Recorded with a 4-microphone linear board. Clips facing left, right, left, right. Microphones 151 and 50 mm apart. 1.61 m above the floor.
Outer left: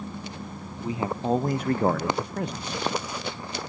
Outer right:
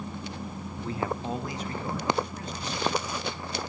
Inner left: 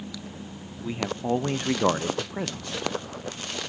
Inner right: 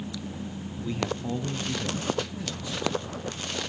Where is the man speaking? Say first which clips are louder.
Outer left 5 dB, inner left 3 dB; 15° left (ahead or behind), 1.0 m; by 3.1 s 50° left (ahead or behind), 1.4 m.